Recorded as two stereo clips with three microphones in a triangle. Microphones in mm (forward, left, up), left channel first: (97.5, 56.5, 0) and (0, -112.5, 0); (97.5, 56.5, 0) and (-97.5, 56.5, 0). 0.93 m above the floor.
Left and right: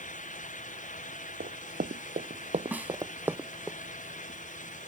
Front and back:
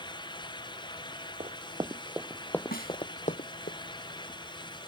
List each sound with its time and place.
1.4 s running footsteps: 135° right; by 3.7 s 30° right
2.7 s a snare drum: 40° right